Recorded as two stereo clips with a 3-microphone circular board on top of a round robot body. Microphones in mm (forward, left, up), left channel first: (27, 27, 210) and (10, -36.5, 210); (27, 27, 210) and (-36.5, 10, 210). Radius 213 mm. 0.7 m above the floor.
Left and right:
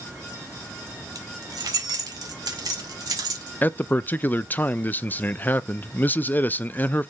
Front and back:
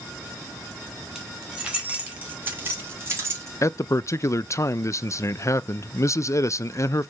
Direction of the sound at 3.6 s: 25° left.